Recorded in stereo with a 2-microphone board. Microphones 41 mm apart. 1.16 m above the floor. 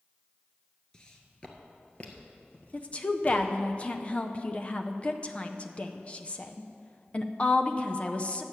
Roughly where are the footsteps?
Centre.